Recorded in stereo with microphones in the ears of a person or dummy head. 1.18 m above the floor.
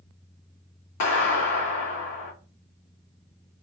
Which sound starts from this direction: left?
A clap, at 1.0 s.